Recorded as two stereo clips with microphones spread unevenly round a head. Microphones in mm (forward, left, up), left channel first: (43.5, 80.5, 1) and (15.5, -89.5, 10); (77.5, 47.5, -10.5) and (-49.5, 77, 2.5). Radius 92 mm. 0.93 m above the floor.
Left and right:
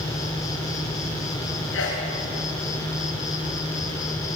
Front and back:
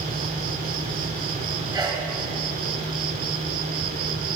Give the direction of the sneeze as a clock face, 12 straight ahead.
9 o'clock.